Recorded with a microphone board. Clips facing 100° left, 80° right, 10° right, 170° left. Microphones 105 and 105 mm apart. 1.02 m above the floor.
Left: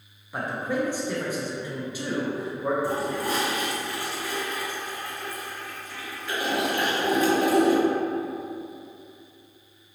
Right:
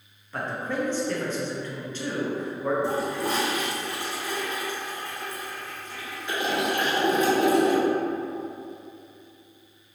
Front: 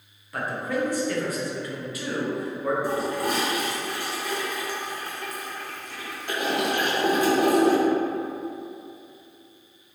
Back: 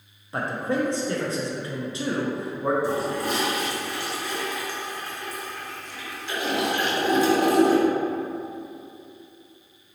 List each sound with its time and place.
0.3 s a man speaking: 160° left, 0.5 m
2.8 s a toilet flushing: 15° right, 0.8 m